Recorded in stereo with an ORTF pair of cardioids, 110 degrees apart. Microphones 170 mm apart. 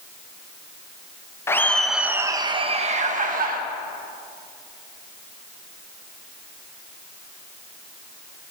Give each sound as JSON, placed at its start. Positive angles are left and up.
{"t": 1.5, "sound": "laughter", "azimuth_deg": 15, "distance_m": 1.0}